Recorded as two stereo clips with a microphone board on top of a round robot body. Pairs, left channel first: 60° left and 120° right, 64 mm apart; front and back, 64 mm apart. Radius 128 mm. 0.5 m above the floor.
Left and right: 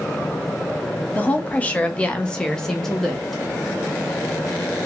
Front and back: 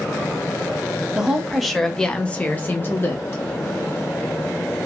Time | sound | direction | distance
1.1 | a woman speaking | 110° left | 1.0 m